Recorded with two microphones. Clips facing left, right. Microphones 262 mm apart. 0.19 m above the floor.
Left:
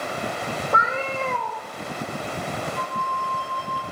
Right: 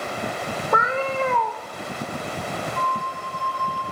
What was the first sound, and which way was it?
A cat meowing, 70° right (ahead or behind).